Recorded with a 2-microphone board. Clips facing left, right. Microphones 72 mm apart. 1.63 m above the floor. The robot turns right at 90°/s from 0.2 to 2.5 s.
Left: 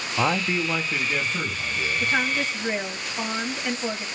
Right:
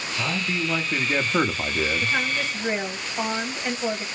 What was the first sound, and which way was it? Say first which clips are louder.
A man speaking: left 4 dB; 125° left.